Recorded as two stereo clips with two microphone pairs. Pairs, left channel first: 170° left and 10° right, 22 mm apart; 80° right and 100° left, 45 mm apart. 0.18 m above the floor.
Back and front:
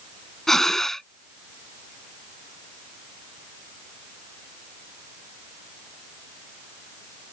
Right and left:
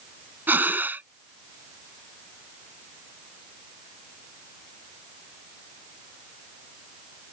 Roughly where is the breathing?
Left.